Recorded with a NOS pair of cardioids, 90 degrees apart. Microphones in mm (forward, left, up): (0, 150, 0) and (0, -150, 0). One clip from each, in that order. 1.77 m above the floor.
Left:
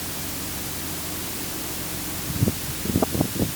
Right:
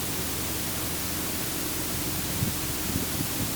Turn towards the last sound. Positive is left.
No sound to turn to.